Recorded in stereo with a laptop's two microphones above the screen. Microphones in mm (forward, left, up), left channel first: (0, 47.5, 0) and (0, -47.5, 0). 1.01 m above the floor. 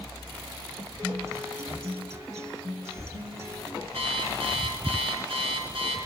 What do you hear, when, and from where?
1.0 s a guitar: 30° right (ahead or behind), 0.9 m
3.9 s an alarm clock: 80° right, 7.5 m